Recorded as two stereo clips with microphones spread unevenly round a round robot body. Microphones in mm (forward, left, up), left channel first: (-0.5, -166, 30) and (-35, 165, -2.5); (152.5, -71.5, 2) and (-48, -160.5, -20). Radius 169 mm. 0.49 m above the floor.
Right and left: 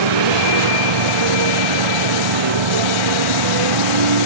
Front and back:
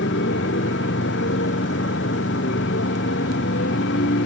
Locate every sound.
0.0 s a motorcycle: 80° left